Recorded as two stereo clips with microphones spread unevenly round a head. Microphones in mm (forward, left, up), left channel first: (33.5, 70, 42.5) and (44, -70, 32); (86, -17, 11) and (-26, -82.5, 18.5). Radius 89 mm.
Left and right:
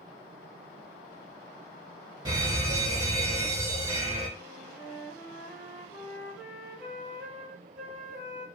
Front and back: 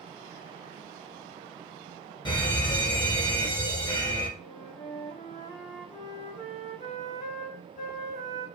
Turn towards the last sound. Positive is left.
turn(degrees=-5)